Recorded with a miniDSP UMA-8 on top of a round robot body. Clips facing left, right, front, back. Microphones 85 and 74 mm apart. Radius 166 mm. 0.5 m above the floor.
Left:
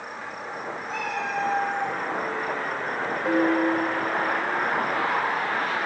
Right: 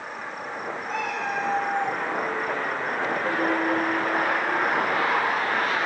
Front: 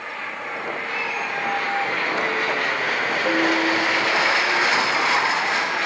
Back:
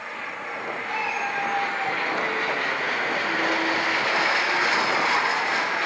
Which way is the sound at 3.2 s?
5° left.